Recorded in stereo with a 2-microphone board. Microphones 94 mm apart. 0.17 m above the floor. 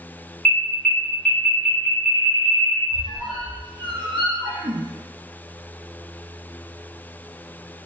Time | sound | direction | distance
0.5 | an alarm | 10° left (ahead or behind) | 1.7 m
2.9 | a squeak | 55° right (ahead or behind) | 0.8 m